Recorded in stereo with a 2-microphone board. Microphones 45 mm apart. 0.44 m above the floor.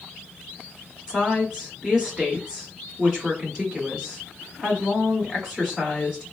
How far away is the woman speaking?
About 1.4 m.